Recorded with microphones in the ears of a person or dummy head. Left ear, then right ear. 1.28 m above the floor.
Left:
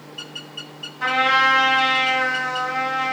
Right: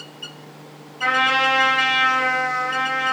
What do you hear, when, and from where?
1.0 s a trumpet: centre (ahead or behind), 1.0 m